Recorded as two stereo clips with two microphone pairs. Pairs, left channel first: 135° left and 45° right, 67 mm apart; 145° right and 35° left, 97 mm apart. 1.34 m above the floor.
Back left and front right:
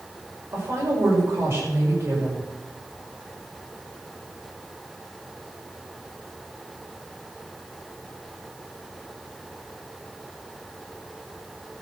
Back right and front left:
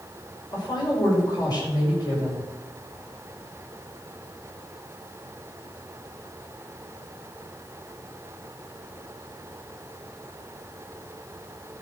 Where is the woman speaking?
100° right, 6 m.